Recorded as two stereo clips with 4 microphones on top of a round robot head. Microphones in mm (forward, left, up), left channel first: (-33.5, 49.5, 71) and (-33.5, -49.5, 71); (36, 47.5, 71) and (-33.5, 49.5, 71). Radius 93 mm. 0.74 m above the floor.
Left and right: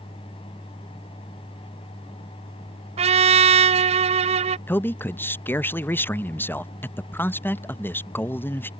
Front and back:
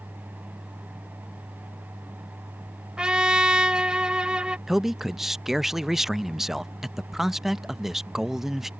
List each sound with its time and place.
3.0 s a trumpet: 100° right
4.7 s a man speaking: 100° left